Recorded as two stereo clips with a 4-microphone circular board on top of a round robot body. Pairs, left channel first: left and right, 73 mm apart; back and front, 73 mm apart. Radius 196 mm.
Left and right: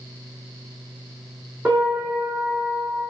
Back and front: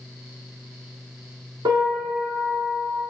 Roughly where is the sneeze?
I don't hear a sneeze.